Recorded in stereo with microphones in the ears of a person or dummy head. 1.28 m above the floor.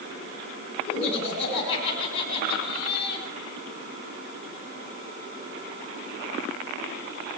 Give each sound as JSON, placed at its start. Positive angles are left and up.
{"t": 0.9, "sound": "laughter", "side_deg": 80, "distance_m": 8.5}